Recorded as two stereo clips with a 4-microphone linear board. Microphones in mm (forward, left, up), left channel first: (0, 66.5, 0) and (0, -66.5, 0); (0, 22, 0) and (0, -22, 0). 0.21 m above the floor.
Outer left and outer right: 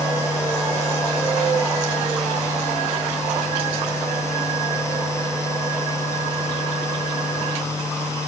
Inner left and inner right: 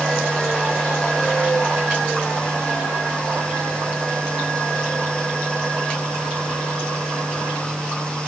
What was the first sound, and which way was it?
Only background noise.